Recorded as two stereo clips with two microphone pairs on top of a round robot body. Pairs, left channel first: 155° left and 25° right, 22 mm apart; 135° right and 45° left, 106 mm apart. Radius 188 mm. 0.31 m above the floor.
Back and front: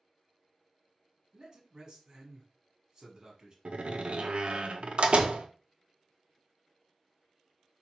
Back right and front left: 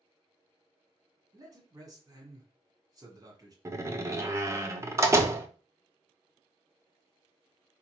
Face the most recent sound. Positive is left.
turn(degrees=-5)